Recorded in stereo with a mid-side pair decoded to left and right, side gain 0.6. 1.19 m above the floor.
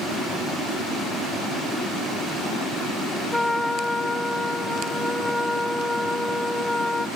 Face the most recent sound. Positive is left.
turn(degrees=10)